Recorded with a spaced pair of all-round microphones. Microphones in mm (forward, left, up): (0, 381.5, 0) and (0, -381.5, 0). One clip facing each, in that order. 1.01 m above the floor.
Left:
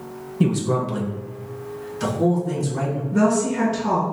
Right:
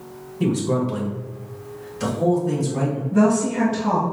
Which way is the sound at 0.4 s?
65° left (ahead or behind).